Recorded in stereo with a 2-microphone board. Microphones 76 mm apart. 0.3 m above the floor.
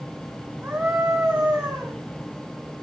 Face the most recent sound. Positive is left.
turn(degrees=-15)  # may be behind; listen again after turning